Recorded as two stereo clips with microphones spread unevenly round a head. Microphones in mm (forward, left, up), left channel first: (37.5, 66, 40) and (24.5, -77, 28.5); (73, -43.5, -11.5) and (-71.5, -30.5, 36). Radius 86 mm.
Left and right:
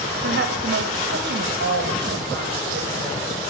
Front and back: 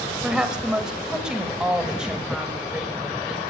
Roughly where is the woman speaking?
Right.